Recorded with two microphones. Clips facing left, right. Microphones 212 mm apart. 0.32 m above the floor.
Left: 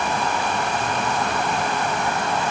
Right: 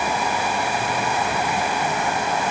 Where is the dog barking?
I don't hear a dog barking.